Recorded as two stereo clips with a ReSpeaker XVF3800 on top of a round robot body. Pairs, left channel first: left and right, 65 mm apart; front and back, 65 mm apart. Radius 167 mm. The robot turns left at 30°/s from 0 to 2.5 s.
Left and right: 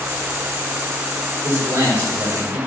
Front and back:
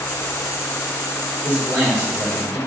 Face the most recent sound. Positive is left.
turn(degrees=-160)